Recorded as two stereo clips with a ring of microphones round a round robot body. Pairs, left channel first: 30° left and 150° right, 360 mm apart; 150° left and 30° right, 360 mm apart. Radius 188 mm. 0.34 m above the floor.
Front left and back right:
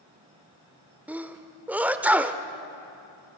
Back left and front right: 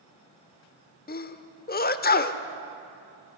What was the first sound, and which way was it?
A sneeze, 130° left.